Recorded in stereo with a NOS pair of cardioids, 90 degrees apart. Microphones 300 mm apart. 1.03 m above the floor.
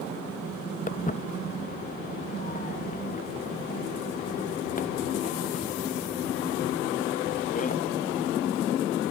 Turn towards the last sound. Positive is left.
turn(degrees=25)